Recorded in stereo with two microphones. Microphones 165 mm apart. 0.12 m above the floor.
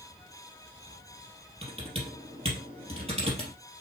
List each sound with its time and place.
1.6 s typing on a keyboard: 35° right (ahead or behind), 3 m